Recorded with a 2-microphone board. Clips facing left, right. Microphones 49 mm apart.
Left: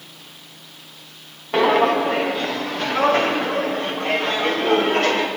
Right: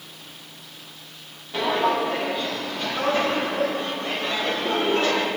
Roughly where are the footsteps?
Left.